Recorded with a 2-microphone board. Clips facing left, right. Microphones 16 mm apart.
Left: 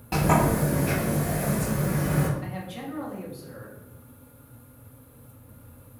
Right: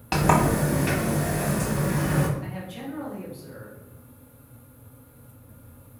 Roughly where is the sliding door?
Right.